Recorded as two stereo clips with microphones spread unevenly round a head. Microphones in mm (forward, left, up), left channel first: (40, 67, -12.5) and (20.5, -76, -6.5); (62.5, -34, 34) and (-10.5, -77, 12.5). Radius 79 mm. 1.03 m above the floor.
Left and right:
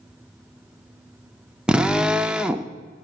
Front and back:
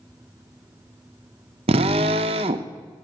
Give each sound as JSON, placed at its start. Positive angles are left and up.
{"t": 1.7, "sound": "a drill", "azimuth_deg": 180, "distance_m": 0.6}